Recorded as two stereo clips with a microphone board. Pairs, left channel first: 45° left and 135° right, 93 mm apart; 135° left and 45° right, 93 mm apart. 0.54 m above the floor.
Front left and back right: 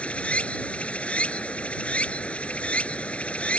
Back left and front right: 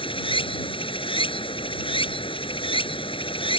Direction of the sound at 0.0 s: 120° left.